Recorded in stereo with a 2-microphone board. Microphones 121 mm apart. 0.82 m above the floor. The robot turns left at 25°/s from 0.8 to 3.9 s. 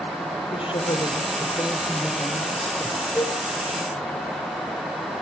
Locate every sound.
0.5 s a woman speaking: 50° left, 2.5 m; by 3.0 s 5° right, 2.5 m
3.1 s a cowbell: 5° left (ahead or behind), 4.5 m; by 3.4 s 15° left (ahead or behind), 4.5 m